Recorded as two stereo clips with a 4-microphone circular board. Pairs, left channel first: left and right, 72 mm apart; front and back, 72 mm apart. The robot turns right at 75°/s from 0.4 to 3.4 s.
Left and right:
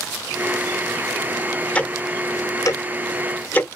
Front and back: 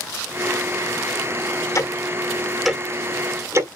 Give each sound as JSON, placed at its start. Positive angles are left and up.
{"t": 1.8, "sound": "ticking", "azimuth_deg": 20, "distance_m": 0.8}